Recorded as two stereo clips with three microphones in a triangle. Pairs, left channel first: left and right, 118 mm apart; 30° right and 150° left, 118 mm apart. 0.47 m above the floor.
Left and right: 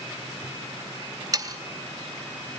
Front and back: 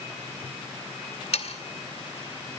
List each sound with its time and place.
1.3 s sawing: 35° right, 2 m